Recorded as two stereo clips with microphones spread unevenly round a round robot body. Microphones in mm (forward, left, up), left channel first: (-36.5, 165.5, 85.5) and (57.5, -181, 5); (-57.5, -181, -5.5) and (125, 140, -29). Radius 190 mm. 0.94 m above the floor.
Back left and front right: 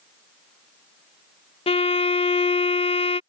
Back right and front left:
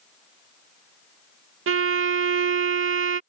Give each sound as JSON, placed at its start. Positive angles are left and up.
{"t": 1.7, "sound": "a violin", "azimuth_deg": 25}